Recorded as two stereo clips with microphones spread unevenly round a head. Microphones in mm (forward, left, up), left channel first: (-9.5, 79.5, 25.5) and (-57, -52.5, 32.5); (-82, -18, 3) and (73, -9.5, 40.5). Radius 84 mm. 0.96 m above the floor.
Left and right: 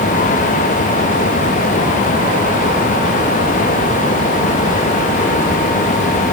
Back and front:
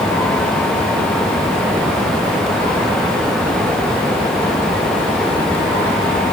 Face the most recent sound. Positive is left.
No sound to turn to.